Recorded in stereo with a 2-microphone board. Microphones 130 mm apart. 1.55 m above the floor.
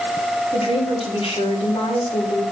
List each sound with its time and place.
0.5 s a woman speaking: 50° left (ahead or behind), 5.5 m